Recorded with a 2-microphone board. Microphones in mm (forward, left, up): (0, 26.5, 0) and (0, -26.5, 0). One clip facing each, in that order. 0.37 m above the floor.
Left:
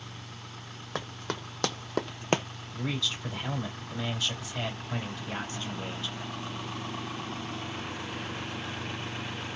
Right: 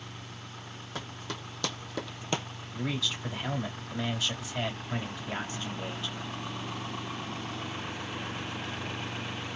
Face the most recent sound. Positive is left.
turn(degrees=-10)  # may be behind; listen again after turning